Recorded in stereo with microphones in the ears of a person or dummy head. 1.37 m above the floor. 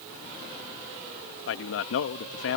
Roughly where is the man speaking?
Left.